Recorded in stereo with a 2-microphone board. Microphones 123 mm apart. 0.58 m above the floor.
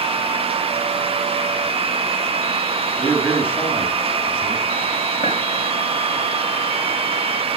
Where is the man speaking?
15° left (ahead or behind), 3.5 m.